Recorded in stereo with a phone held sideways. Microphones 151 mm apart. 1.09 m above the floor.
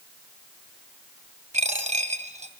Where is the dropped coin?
55° right (ahead or behind), 2 m.